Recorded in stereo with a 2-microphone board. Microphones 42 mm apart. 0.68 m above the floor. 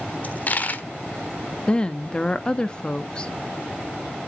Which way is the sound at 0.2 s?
40° left (ahead or behind).